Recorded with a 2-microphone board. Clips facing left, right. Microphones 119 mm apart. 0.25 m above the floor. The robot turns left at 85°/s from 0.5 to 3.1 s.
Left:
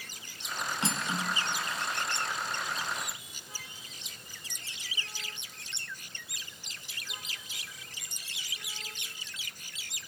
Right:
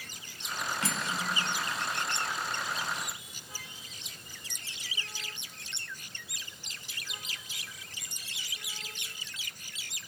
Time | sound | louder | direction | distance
0.8 | cutlery clinking | left 3 dB | 20° left (ahead or behind) | 1.4 m